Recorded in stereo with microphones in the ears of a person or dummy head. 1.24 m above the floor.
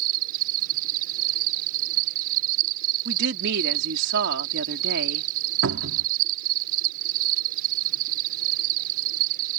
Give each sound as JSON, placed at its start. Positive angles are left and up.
{"t": 0.0, "sound": "an insect", "side_deg": -55}
{"t": 3.0, "sound": "a woman speaking", "side_deg": -70}
{"t": 5.6, "sound": "a cupboard door", "side_deg": -65}